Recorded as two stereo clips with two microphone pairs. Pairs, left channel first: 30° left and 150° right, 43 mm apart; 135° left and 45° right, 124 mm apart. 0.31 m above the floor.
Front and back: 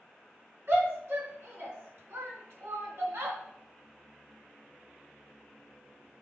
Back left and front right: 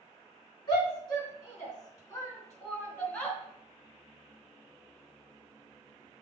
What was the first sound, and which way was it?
A shout, 175° right.